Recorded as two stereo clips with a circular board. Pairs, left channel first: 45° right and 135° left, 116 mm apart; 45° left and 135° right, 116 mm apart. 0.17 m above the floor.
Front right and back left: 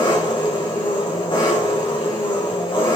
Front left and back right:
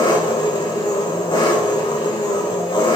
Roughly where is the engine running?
Ahead.